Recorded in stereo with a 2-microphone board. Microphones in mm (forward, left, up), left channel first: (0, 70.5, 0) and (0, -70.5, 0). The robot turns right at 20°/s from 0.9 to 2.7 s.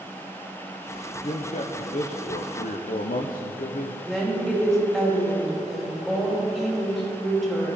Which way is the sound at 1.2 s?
45° left (ahead or behind).